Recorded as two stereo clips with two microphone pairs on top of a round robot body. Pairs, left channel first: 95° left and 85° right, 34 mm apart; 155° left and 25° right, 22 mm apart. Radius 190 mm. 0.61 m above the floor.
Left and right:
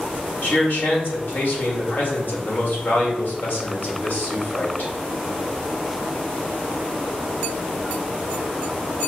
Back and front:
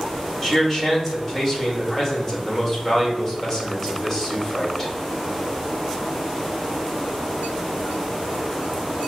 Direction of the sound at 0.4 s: 75° left.